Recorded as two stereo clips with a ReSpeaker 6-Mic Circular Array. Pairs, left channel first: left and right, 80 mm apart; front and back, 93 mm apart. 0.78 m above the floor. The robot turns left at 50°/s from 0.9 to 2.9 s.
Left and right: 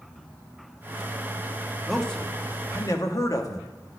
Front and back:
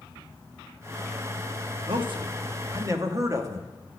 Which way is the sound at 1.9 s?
Straight behind.